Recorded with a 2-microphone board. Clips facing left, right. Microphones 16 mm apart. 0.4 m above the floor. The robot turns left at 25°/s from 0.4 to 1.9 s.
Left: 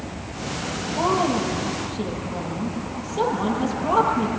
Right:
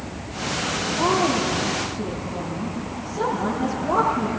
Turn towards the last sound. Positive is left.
turn(degrees=60)  # may be behind; listen again after turning